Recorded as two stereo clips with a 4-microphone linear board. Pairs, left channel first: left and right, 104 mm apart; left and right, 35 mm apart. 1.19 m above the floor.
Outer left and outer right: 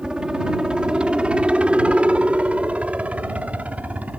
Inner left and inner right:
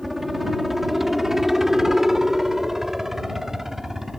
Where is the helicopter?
10° right (ahead or behind); by 4.2 s 15° right (ahead or behind).